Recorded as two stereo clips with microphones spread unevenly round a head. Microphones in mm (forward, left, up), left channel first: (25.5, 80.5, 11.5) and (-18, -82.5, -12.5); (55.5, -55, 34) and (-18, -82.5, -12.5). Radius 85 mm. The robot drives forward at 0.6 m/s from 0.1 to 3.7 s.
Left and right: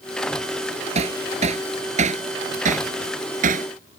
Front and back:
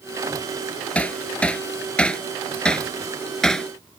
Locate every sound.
0.9 s hammering: 50° right; by 3.7 s 60° right